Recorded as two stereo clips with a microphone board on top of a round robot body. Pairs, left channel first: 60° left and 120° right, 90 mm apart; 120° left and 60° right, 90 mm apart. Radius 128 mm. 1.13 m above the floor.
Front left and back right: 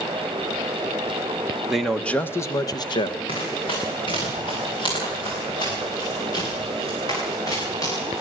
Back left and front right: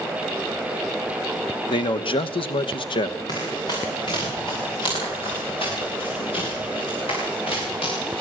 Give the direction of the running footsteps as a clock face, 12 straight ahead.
9 o'clock.